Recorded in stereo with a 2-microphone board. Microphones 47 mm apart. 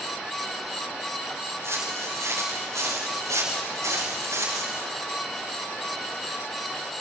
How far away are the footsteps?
About 7 m.